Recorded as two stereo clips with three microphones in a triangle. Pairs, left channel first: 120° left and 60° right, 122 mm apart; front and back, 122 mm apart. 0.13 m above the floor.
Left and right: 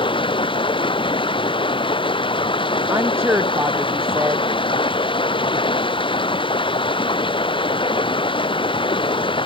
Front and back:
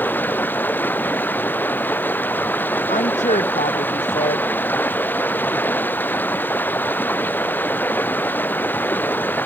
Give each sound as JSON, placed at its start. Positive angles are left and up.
{"t": 0.0, "sound": "running water", "azimuth_deg": 75}
{"t": 2.9, "sound": "a woman speaking", "azimuth_deg": 10}